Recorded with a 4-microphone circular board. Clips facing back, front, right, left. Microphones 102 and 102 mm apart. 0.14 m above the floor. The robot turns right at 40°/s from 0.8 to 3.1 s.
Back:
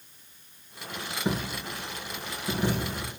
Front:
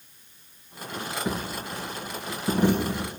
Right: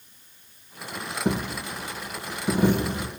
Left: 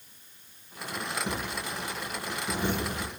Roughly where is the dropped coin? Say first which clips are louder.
Back 4 dB, right 6 dB; right.